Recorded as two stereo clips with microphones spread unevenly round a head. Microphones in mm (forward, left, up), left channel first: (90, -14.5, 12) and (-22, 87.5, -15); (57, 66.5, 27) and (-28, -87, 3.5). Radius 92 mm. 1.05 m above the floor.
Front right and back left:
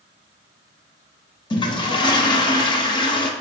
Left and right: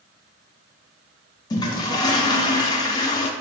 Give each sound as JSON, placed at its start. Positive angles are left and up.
{"t": 1.5, "sound": "a toilet flushing", "azimuth_deg": 5, "distance_m": 0.5}